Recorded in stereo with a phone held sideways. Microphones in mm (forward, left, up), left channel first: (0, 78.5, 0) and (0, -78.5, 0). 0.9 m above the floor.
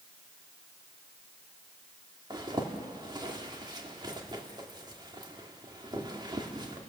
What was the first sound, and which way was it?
A zipper, 25° right (ahead or behind).